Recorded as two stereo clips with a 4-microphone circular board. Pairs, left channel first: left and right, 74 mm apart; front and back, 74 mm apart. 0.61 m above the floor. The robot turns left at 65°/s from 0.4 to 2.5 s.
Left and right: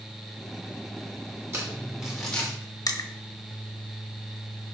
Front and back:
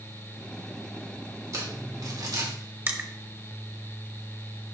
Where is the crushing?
120° left, 1.0 m.